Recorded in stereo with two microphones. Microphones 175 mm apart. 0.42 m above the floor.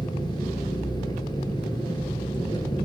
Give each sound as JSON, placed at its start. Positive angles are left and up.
{"t": 0.0, "sound": "an engine running", "side_deg": 25, "distance_m": 1.6}